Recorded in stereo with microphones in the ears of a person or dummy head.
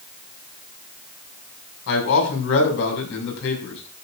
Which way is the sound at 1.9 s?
70° left (ahead or behind).